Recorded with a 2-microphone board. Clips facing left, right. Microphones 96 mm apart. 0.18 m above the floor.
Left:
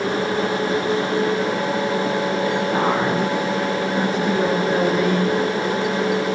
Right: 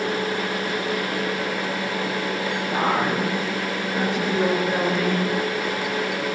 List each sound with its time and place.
2.7 s a woman speaking: centre (ahead or behind), 5 m; by 5.3 s 5° left (ahead or behind), 3 m